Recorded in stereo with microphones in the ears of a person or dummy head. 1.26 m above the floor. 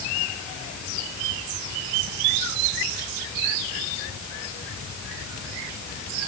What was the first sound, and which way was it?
Only background noise.